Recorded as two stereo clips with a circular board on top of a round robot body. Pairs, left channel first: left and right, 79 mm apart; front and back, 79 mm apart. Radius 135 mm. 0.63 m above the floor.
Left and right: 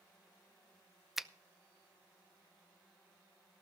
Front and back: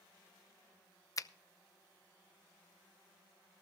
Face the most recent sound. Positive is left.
turn(degrees=-5)